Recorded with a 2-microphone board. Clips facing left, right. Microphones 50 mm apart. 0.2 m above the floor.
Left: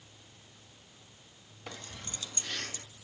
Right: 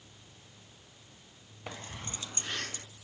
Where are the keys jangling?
20° right (ahead or behind), 0.9 m; by 2.8 s 35° right (ahead or behind), 2.5 m.